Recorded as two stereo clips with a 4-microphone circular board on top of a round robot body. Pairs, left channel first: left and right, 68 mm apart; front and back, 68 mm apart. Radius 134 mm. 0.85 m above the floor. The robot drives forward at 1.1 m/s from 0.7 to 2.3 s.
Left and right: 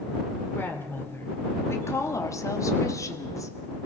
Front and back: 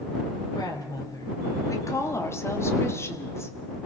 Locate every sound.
0.6 s a woman speaking: 30° left, 3.5 m; by 3.5 s 50° left, 2.5 m